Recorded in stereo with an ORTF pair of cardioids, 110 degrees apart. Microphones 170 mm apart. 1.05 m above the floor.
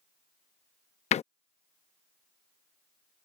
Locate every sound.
1.1 s a door slam: 40° left